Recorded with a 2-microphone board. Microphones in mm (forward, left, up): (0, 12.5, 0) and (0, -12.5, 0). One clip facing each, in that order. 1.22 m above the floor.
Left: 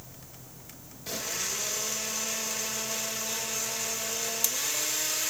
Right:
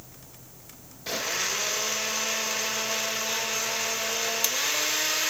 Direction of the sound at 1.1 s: 30° right (ahead or behind).